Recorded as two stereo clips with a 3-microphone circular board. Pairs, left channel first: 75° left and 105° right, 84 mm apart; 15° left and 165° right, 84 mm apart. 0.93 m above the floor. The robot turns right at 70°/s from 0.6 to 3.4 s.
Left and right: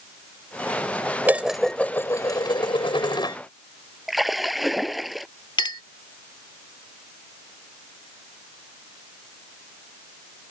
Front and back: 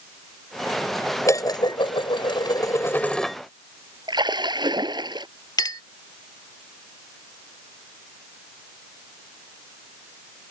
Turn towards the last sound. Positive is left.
turn(degrees=50)